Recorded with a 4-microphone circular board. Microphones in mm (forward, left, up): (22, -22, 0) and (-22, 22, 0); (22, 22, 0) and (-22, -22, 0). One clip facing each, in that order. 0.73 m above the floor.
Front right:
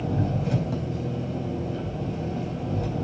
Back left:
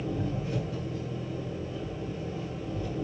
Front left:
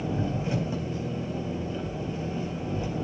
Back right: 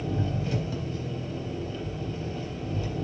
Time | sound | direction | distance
0.0 | an engine running | 25° right | 3.5 m